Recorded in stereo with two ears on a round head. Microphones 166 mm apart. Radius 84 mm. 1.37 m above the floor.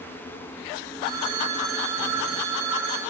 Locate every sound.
1.0 s a phone ringing: 60° right (ahead or behind), 3.5 m